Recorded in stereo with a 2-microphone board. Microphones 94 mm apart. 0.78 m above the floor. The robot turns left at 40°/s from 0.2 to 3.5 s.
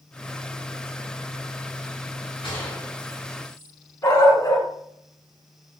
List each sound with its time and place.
2.4 s a gunshot: 65° left (ahead or behind), 3 m; by 3.7 s 20° left (ahead or behind), 3 m
4.0 s a dog barking: 35° left (ahead or behind), 3.5 m